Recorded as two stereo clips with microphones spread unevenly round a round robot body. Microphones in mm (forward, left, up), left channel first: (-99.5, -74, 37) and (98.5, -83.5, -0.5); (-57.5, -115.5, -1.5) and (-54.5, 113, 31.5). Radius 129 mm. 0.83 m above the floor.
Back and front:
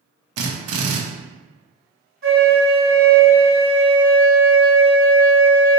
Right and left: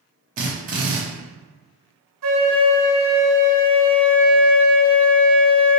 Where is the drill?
30° left, 0.5 m.